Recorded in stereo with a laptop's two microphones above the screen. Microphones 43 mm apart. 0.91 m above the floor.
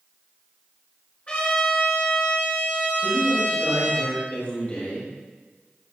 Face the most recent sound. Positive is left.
turn(degrees=35)  # may be behind; listen again after turning